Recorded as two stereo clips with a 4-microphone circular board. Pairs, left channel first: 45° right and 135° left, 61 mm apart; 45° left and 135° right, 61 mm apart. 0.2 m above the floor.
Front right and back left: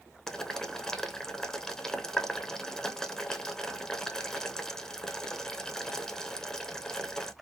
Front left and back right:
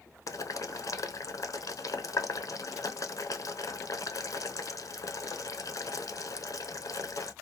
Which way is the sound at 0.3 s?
35° left.